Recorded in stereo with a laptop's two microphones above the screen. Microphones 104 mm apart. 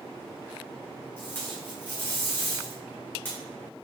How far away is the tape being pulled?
About 2 m.